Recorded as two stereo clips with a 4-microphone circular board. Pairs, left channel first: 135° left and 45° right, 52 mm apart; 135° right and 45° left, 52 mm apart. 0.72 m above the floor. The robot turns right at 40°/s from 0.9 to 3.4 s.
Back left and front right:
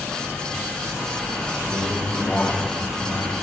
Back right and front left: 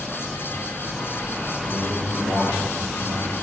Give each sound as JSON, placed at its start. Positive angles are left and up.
{"t": 1.6, "sound": "a man speaking", "azimuth_deg": 60, "distance_m": 3.0}